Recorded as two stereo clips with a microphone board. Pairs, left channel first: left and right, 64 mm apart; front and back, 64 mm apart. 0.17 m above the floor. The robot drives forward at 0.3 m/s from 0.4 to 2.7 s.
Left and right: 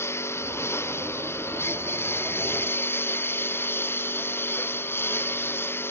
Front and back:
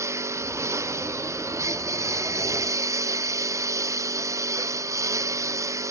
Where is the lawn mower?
140° left; by 5.9 s 145° left.